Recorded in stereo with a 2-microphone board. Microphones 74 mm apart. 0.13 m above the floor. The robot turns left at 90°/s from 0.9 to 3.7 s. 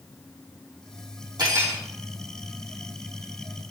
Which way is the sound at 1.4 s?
120° right.